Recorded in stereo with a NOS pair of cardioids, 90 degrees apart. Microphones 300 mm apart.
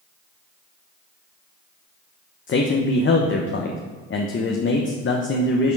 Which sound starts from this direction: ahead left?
A man speaking, at 2.5 s.